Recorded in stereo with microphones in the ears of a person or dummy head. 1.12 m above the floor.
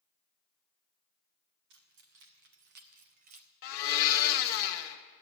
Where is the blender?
50° left (ahead or behind), 1.1 m.